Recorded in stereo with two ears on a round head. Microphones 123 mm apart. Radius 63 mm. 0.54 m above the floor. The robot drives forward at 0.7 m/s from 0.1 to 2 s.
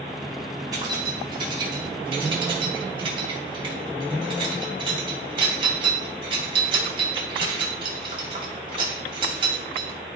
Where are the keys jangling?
30° right (ahead or behind), 3 m; by 10.0 s 35° right (ahead or behind), 2.5 m.